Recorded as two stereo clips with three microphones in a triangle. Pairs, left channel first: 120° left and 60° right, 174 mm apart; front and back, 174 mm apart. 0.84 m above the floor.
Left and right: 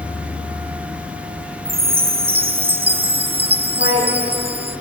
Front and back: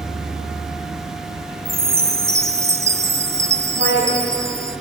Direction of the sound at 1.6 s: 110° right.